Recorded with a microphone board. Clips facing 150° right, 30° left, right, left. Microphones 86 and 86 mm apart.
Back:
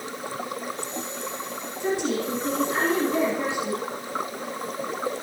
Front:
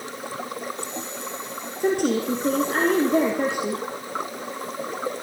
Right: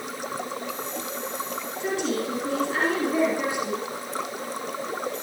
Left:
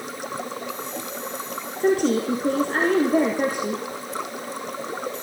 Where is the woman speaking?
55° left, 3 m.